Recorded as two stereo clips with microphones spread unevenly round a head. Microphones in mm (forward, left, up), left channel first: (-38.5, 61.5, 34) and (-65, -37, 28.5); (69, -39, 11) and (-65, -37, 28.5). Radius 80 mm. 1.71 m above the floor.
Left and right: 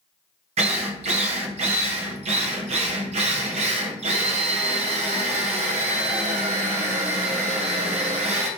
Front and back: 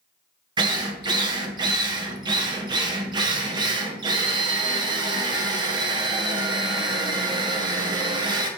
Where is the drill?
125° right, 0.5 m.